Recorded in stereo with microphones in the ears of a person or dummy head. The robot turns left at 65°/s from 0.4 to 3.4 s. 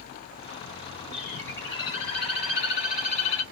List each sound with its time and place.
1.1 s a bird: 175° right, 2 m; by 3.4 s 35° left, 2 m